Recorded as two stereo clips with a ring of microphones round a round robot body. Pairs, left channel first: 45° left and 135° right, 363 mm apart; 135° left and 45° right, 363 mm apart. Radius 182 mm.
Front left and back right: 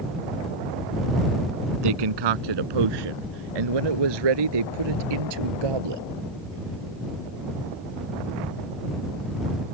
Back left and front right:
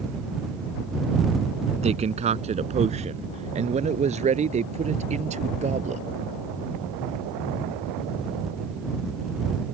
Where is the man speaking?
120° right; by 6.0 s 115° right.